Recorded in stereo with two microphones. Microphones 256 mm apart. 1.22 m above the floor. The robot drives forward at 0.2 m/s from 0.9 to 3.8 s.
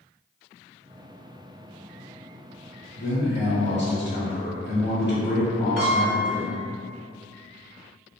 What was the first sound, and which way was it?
A man speaking, 50° left (ahead or behind).